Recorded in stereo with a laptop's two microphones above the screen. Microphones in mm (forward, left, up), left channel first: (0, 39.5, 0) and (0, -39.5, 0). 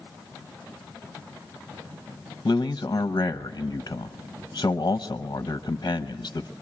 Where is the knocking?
I don't hear knocking.